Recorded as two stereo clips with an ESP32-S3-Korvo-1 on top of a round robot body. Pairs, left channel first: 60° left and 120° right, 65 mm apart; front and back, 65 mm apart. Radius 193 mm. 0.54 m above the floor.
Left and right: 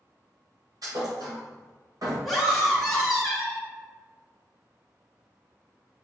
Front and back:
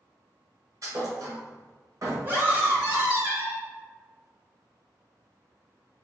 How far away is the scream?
About 1.4 m.